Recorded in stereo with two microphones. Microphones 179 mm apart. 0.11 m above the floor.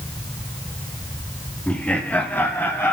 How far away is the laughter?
About 4 m.